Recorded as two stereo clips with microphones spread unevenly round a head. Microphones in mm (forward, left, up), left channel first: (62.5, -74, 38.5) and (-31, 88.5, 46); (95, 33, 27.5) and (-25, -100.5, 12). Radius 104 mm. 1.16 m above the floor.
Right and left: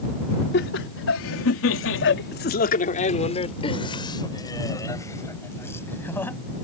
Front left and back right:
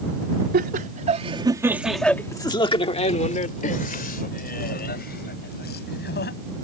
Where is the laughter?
95° right; by 6.4 s 20° left.